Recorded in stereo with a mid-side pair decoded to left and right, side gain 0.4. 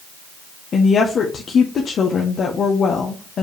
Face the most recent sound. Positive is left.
turn(degrees=60)